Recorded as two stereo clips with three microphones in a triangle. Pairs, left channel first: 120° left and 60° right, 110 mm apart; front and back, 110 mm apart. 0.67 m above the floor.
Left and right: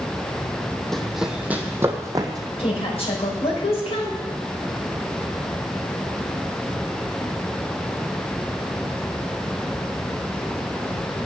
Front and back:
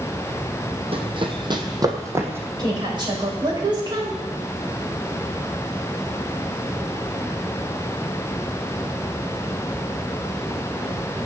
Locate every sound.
0.9 s running footsteps: 155° right, 1.6 m; by 2.5 s 110° right, 2 m
2.6 s a woman speaking: 135° left, 4 m